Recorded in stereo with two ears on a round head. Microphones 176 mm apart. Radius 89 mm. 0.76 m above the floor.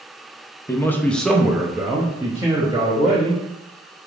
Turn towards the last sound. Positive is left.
turn(degrees=-20)  # may be behind; listen again after turning